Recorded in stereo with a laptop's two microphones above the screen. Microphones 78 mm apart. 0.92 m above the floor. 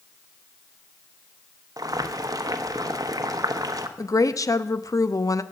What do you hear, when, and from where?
1.8 s boiling: 50° right (ahead or behind), 0.9 m
4.0 s a woman speaking: 45° left (ahead or behind), 0.7 m